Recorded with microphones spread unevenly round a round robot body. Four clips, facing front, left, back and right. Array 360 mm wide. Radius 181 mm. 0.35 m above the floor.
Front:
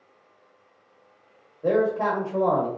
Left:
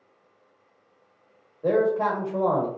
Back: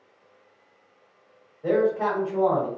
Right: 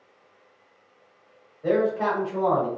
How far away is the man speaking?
About 1.3 m.